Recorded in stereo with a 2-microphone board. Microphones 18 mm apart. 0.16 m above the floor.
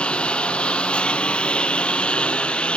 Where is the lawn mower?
80° left.